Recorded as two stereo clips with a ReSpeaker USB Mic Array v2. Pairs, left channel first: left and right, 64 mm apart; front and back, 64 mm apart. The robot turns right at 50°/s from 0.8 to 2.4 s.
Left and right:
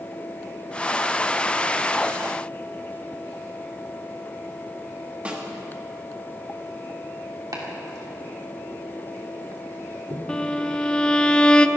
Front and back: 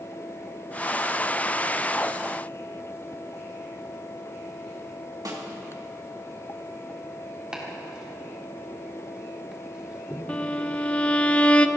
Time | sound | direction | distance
5.2 | a snare drum | 160° right | 2 m
7.5 | chopping | 105° right | 2.5 m
10.3 | a violin | 35° left | 0.6 m